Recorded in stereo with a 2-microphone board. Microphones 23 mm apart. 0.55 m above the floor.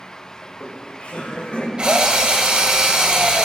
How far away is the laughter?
About 2.5 m.